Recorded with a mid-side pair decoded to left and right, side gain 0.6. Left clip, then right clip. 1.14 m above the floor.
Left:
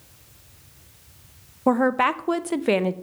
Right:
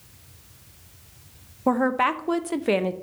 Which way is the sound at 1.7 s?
10° left.